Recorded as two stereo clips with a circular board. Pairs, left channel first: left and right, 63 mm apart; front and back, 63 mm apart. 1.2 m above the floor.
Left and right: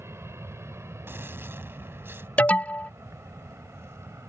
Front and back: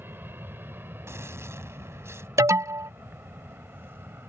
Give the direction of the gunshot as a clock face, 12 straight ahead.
5 o'clock.